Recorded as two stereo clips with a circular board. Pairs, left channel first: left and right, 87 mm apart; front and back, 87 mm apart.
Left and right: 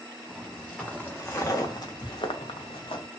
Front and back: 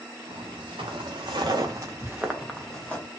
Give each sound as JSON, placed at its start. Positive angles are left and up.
{"t": 0.3, "sound": "footsteps", "azimuth_deg": 175, "distance_m": 1.2}